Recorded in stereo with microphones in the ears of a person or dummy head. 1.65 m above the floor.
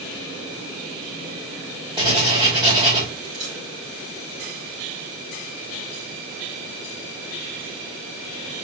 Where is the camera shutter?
80° right, 4.5 m.